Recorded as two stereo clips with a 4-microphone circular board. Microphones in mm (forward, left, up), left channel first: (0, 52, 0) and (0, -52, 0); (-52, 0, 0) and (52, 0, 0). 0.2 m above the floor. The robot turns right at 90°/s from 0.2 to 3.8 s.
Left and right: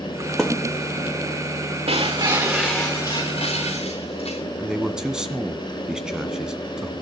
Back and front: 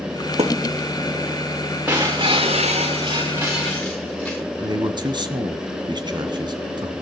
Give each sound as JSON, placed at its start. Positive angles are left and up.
{"t": 0.4, "sound": "a thud", "azimuth_deg": 0, "distance_m": 2.0}
{"t": 1.9, "sound": "breaking glass", "azimuth_deg": -75, "distance_m": 5.5}
{"t": 4.6, "sound": "a man speaking", "azimuth_deg": -10, "distance_m": 1.7}